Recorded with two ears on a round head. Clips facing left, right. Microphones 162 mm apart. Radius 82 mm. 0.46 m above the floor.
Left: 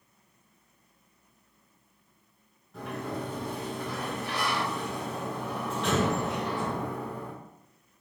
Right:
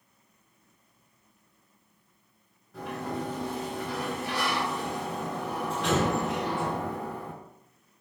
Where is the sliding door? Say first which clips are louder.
Right 1 dB; centre (ahead or behind), 1.5 m.